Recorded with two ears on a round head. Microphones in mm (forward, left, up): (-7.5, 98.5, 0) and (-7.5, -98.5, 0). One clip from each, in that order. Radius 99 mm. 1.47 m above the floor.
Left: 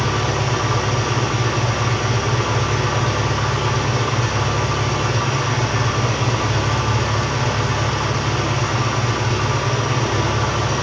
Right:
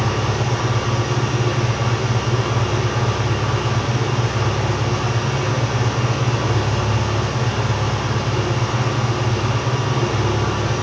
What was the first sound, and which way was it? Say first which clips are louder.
An engine running: left 1 dB; 60° left (ahead or behind).